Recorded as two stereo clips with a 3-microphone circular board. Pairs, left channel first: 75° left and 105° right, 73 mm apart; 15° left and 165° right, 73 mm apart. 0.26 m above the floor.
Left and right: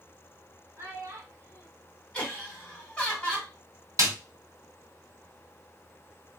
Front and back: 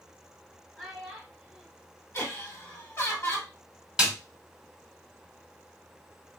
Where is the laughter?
5° left, 2.0 m.